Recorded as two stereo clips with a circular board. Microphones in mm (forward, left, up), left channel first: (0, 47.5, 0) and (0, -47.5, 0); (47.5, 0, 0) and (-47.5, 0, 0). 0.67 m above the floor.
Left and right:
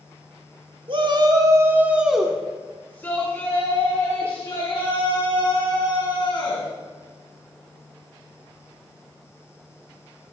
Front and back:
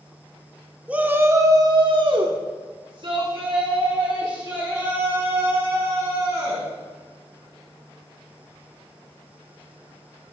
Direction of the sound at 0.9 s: 105° right.